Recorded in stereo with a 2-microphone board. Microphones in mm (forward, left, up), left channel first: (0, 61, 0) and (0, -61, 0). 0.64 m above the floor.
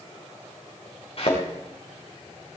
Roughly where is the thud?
Left.